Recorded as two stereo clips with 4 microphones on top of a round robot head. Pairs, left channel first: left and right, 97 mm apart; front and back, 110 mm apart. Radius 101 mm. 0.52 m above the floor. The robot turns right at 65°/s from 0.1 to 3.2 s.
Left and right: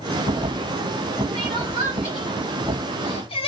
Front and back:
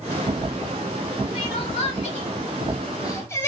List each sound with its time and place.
1.3 s crying: 55° right, 2.0 m; by 3.5 s 65° left, 2.0 m